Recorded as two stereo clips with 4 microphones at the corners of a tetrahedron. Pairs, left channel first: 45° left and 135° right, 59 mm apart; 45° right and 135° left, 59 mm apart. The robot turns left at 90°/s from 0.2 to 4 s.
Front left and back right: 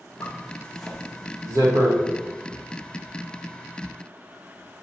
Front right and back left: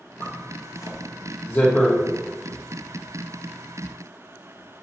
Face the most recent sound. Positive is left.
turn(degrees=35)